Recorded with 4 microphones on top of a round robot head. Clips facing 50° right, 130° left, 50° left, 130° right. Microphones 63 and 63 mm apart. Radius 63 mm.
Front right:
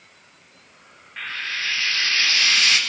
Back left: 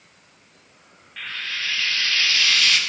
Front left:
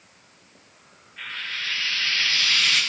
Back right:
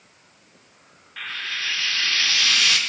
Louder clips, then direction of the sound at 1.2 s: Front right 2 dB, back right 2 dB; 115° right.